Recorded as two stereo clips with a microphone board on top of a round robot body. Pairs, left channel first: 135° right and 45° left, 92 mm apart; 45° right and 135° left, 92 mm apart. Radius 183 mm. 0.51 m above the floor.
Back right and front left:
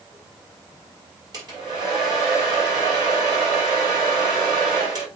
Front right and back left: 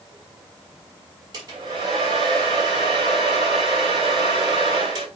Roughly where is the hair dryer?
Left.